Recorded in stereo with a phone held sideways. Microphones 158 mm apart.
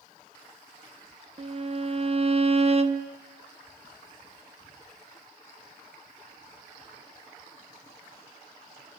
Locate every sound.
1.4 s a violin: 40° right (ahead or behind), 0.9 m